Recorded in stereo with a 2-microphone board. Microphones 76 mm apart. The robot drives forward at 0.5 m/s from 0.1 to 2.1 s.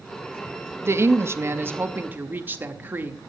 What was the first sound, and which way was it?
A woman speaking, 35° right (ahead or behind).